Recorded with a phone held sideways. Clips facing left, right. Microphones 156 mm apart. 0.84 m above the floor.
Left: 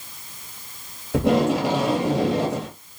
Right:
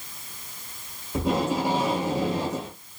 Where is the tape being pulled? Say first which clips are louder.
Left 6 dB; 80° left, 2.5 m.